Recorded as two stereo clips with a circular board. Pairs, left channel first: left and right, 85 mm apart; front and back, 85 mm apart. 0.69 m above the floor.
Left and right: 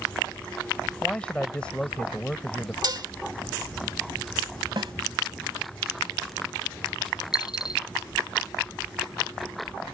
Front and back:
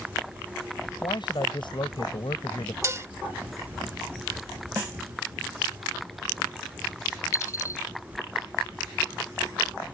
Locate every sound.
1.0 s a man speaking: 15° left
2.8 s dishes clattering: 125° right
4.8 s a snare drum: 110° right
7.3 s a dropped coin: 55° left